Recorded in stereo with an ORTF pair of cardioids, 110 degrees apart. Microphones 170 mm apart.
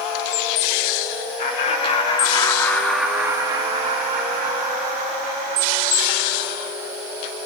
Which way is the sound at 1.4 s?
50° left.